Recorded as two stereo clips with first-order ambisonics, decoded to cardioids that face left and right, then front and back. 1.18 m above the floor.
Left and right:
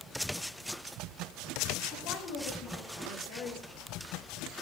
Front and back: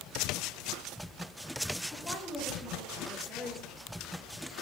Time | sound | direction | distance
1.9 | a woman speaking | 70° left | 2.0 m